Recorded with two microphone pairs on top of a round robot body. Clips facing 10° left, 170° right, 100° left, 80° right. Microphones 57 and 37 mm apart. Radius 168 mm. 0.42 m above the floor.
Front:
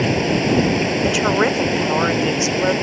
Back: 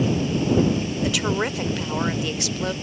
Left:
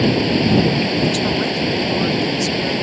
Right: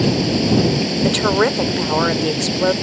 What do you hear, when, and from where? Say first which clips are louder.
0.0 s running water: front 5 dB, left 1 dB; 40° left
1.0 s a woman speaking: front 6 dB, right 3 dB; 45° right